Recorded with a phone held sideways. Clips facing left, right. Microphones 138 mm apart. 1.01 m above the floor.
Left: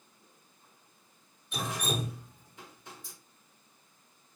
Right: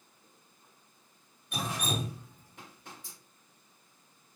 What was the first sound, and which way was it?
Dripping, 60° right (ahead or behind).